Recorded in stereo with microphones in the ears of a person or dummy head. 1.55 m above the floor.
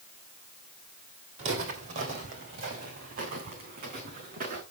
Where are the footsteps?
30° right (ahead or behind), 2.5 m; by 4.6 s 45° right (ahead or behind), 6.5 m.